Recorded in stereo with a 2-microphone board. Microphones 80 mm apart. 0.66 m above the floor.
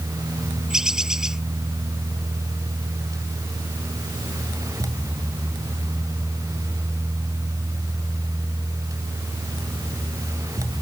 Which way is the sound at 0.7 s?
5° right (ahead or behind).